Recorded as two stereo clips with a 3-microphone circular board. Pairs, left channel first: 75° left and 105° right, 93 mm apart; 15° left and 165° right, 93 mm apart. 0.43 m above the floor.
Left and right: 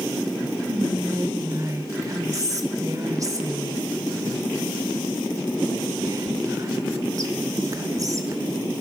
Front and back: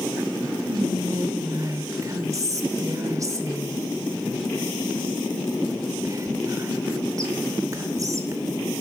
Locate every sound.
0.7 s whispering: 135° right, 1.0 m